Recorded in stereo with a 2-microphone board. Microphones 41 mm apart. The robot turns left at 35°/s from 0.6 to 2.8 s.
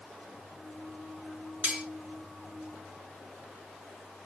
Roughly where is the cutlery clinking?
Right.